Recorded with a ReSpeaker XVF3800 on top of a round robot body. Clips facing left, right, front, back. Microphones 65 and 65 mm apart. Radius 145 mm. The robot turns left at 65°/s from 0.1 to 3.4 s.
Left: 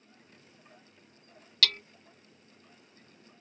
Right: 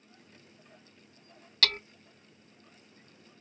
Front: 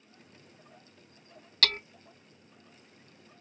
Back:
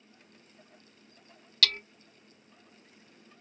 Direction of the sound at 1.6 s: 40° right.